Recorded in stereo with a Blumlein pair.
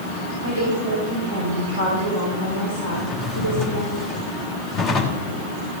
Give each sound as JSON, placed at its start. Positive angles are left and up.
{"t": 0.4, "sound": "a woman speaking", "azimuth_deg": 70, "distance_m": 6.0}
{"t": 2.9, "sound": "a drawer", "azimuth_deg": 30, "distance_m": 3.0}